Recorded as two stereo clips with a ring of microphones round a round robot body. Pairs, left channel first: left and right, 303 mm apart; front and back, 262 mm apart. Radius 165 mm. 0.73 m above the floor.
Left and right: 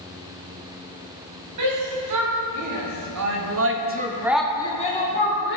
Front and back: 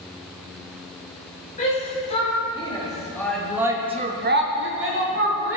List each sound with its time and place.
1.6 s a shout: 65° right, 3.5 m; by 5.6 s 140° left, 2.5 m